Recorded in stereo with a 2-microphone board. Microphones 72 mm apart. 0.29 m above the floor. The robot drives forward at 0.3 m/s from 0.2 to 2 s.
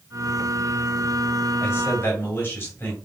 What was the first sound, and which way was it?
A man speaking, 35° left (ahead or behind).